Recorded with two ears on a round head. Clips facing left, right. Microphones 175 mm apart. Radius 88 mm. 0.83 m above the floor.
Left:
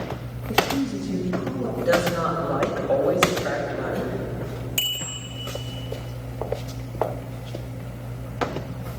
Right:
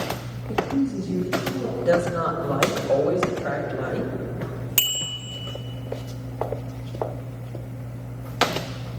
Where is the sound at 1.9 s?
30° right (ahead or behind), 3.5 m.